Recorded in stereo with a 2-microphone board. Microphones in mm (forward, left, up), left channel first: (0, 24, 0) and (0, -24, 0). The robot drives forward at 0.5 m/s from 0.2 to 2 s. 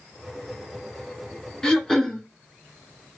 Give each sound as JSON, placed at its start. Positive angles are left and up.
{"t": 1.6, "sound": "throat clearing", "side_deg": 10, "distance_m": 0.7}